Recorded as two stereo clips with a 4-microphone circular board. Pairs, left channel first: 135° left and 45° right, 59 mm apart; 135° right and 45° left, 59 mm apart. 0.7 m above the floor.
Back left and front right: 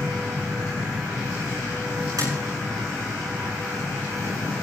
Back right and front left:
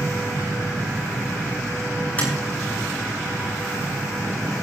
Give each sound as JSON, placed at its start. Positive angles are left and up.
{"t": 2.2, "sound": "tapping", "azimuth_deg": -70, "distance_m": 10.0}